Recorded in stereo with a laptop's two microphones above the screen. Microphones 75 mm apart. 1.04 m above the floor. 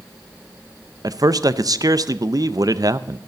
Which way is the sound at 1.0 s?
50° right (ahead or behind).